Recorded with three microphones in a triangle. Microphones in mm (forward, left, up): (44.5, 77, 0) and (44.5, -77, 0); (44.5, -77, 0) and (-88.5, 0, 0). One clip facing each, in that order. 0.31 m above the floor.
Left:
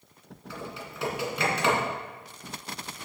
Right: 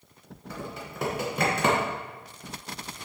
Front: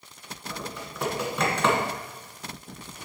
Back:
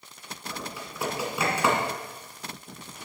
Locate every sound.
0.5 s typing on a keyboard: 130° right, 1.9 m